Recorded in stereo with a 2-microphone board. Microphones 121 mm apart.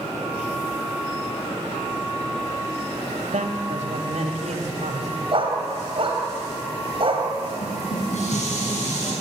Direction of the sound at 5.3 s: 50° right (ahead or behind).